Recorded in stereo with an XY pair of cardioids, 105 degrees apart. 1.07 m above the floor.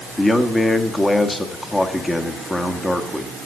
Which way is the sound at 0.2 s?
20° left.